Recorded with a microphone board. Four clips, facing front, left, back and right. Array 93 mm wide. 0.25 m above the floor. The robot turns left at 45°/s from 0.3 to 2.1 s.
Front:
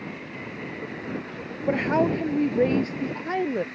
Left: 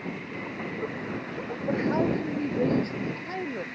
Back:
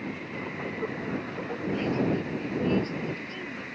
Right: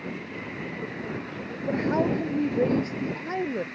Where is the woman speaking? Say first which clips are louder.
Right 1 dB, front 6 dB; 5° left; by 3.6 s 10° right.